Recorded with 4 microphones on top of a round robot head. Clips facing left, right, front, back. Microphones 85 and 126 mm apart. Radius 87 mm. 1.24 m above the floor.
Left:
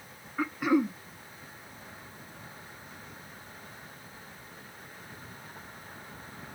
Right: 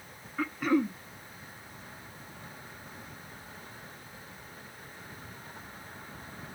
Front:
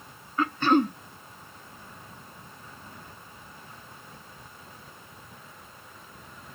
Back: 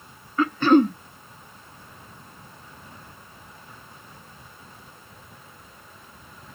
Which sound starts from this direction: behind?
Throat clearing, at 0.4 s.